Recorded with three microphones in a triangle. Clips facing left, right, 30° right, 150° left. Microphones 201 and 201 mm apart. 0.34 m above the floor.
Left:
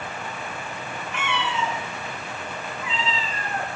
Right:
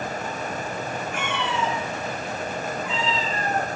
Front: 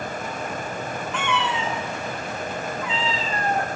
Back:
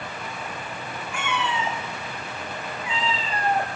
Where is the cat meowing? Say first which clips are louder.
Left 2 dB, front 1 dB; 130° right, 9 m; by 3.7 s 135° right, 7.5 m.